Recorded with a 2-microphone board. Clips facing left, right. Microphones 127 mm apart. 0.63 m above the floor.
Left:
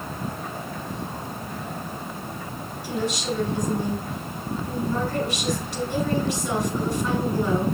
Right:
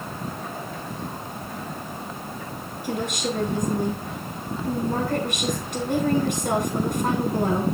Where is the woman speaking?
55° right (ahead or behind), 9 m.